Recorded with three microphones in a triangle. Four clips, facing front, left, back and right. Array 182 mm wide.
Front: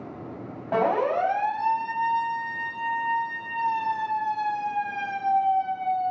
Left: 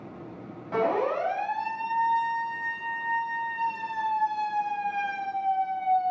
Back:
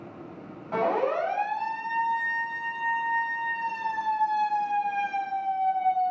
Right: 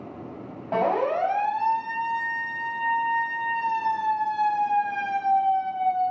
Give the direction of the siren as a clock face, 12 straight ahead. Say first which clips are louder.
Right 2 dB, front 2 dB; 1 o'clock.